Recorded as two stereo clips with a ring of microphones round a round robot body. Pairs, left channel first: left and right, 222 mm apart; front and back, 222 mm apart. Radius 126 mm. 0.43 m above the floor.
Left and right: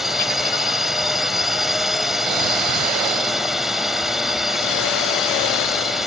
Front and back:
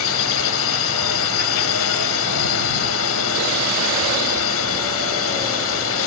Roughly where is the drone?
Ahead.